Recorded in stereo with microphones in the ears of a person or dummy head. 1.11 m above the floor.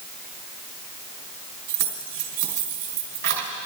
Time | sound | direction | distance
1.7 | keys jangling | 55° right (ahead or behind) | 3 m